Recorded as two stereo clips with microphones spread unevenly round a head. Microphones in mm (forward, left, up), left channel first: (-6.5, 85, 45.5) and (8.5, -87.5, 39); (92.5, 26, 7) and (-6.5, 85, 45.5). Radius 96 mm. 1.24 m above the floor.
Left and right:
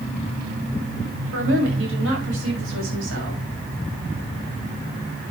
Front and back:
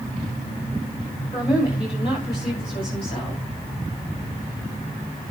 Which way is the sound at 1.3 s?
95° right.